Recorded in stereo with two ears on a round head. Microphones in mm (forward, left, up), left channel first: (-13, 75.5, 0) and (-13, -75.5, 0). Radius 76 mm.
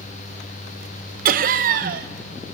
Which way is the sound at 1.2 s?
50° right (ahead or behind).